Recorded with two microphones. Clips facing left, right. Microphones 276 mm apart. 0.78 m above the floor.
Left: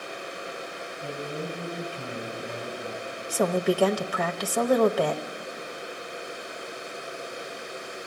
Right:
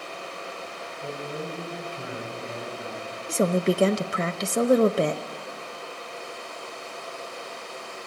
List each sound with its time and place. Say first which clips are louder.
1.0 s a man speaking: even; 15° right (ahead or behind), 3.5 m
3.3 s a woman speaking: right 1 dB; 25° right (ahead or behind), 0.5 m